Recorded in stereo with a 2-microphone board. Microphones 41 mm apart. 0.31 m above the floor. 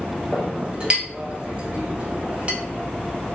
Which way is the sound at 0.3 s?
30° right (ahead or behind).